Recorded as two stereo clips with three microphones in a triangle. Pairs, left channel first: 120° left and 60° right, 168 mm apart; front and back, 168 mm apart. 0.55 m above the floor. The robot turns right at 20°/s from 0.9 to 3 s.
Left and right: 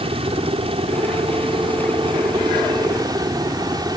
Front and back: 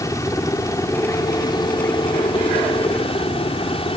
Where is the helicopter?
55° right; by 4.0 s 15° right.